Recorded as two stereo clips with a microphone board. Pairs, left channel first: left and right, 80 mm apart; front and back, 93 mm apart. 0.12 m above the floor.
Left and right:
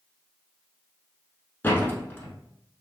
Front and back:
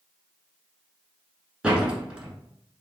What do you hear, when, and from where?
1.6 s a door slam: 115° left, 0.9 m